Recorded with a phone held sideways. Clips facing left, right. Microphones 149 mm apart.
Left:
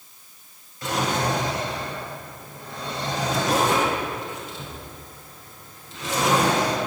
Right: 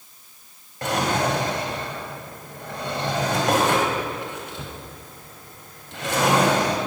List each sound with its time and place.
0.8 s a drawer: 75° right (ahead or behind), 2.5 m